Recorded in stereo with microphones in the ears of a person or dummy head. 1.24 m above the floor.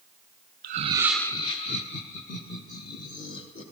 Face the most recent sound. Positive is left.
turn(degrees=45)  # may be behind; listen again after turning